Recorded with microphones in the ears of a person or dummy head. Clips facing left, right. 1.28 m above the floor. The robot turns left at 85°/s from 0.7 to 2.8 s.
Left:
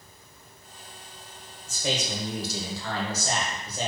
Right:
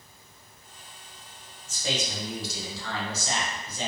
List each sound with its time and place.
1.7 s a man speaking: 140° left, 0.8 m; by 3.9 s 45° left, 0.8 m